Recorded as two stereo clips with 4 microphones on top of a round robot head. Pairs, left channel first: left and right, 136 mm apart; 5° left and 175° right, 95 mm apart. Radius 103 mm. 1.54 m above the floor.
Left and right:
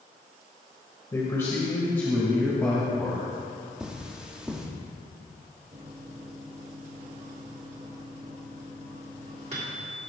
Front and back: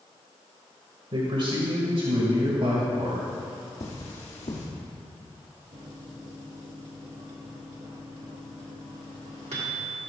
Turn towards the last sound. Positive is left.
turn(degrees=-145)